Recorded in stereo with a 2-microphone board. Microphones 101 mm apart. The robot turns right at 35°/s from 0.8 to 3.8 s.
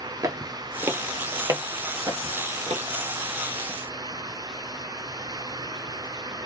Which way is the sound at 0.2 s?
35° right (ahead or behind).